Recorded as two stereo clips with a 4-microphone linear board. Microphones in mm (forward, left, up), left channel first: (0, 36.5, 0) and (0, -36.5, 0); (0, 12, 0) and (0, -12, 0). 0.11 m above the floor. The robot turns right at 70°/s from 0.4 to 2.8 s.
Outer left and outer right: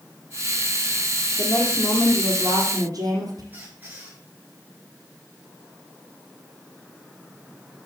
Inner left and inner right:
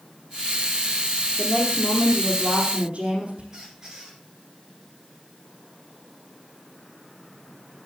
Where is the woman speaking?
135° left, 4.5 m; by 3.4 s 125° right, 4.5 m.